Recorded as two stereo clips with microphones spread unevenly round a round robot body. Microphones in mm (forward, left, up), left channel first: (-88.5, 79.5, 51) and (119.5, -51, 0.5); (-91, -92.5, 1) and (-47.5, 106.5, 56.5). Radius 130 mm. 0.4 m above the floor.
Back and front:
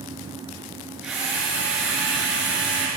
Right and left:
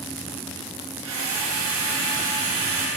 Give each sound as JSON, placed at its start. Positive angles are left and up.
{"t": 1.0, "sound": "a drill", "azimuth_deg": 55, "distance_m": 7.0}